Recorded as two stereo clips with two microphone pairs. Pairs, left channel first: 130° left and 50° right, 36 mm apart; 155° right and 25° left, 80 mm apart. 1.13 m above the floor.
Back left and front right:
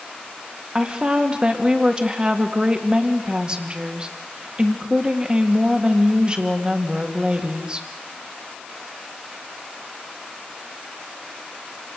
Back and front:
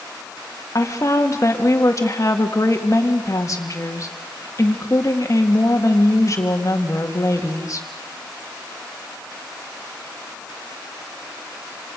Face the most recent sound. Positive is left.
turn(degrees=-110)